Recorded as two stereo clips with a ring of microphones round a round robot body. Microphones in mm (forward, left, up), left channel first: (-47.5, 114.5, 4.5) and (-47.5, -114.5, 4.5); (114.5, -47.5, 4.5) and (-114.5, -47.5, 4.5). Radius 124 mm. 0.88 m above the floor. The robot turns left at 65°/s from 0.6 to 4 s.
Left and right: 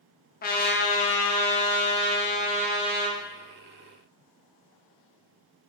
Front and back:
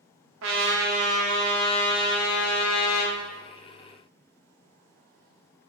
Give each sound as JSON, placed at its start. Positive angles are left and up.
{"t": 0.4, "sound": "a trumpet", "azimuth_deg": 140, "distance_m": 0.5}